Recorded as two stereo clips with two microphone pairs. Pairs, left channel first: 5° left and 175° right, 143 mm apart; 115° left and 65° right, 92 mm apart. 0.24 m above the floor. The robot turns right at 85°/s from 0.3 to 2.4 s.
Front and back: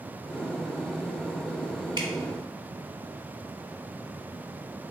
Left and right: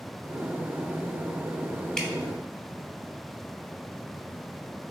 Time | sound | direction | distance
2.0 | dripping | 175° right | 0.7 m